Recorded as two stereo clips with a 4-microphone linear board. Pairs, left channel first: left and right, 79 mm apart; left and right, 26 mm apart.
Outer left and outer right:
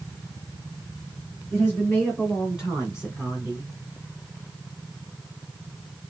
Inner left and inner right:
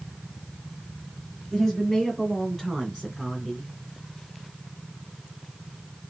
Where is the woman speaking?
5° right (ahead or behind), 3 m; by 3.7 s 15° right (ahead or behind), 2 m.